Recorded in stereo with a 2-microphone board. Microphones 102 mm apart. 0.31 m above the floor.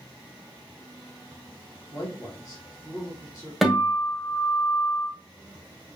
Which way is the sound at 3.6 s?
Centre (ahead or behind).